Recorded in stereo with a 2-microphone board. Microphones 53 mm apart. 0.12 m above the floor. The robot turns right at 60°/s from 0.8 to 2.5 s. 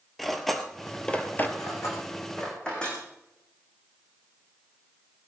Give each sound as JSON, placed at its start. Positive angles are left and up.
{"t": 0.2, "sound": "cutlery clinking", "side_deg": 5, "distance_m": 1.5}
{"t": 1.6, "sound": "cutlery clinking", "side_deg": 70, "distance_m": 5.0}